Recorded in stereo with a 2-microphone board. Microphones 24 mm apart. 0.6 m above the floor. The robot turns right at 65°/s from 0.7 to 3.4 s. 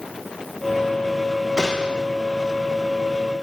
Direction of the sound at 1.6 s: 145° right.